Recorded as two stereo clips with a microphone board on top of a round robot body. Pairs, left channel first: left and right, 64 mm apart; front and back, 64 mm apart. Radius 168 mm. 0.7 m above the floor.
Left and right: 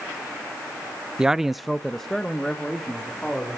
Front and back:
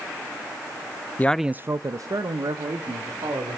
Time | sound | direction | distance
1.2 | a man speaking | 25° right | 0.6 m